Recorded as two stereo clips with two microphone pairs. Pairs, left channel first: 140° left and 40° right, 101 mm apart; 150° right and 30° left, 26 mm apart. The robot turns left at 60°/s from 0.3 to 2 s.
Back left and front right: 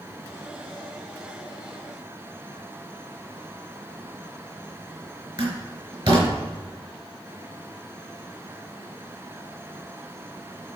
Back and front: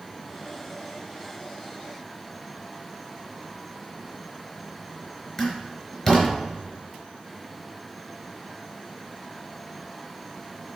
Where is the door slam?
70° right, 4 m.